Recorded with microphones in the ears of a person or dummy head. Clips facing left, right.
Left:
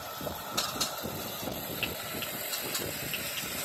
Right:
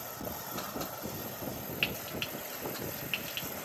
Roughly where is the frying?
Right.